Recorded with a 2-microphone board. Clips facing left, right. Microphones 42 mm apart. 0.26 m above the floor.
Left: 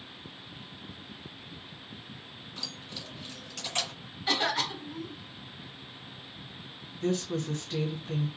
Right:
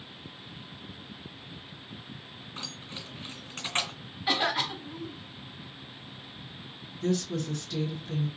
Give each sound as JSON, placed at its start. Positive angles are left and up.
{"t": 2.6, "sound": "keys jangling", "side_deg": -40, "distance_m": 1.4}
{"t": 4.3, "sound": "a cough", "side_deg": -10, "distance_m": 1.0}
{"t": 7.0, "sound": "a woman speaking", "side_deg": 40, "distance_m": 2.0}